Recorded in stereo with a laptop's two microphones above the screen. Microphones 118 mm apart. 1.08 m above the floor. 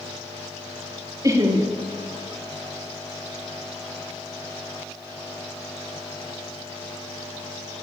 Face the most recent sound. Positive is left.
turn(degrees=-30)  # may be behind; listen again after turning